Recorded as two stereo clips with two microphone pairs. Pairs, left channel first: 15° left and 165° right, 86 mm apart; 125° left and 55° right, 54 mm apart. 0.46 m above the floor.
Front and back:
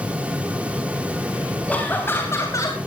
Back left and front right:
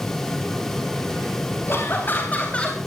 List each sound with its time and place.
1.7 s laughter: 85° left, 3.5 m; by 2.8 s 55° left, 2.5 m